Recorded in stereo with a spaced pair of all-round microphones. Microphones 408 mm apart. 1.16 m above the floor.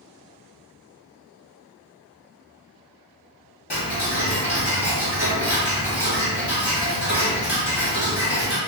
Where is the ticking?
70° left (ahead or behind), 1.4 m.